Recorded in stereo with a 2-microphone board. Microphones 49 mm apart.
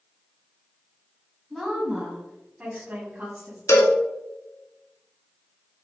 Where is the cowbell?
85° left, 0.5 m.